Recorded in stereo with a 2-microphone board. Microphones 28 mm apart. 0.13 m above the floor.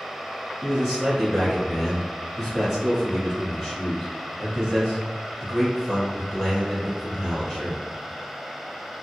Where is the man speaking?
15° left (ahead or behind), 1.5 m.